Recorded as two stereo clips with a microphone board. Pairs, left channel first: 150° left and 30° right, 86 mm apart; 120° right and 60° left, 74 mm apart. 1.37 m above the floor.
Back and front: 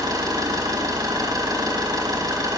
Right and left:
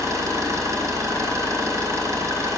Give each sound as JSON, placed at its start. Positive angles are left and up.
{"t": 0.0, "sound": "an engine running", "azimuth_deg": 15, "distance_m": 1.9}